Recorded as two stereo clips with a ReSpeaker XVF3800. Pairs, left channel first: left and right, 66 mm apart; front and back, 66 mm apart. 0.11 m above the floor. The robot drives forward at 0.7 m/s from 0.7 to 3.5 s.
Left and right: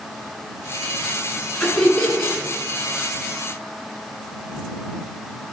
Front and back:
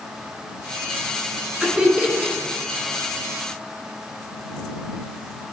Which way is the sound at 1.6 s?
145° left.